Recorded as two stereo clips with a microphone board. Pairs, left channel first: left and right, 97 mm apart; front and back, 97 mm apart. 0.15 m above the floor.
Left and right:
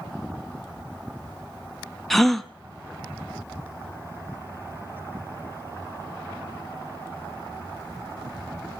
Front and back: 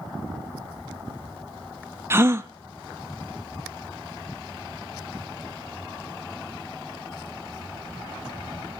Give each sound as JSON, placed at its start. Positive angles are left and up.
{"t": 2.1, "sound": "a gasp", "azimuth_deg": 175, "distance_m": 0.7}